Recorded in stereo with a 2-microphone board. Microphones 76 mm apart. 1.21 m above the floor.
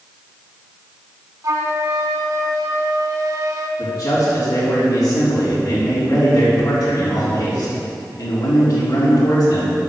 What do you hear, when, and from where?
1.4 s a flute: 55° right (ahead or behind), 1.1 m
3.8 s a man speaking: 60° left (ahead or behind), 4 m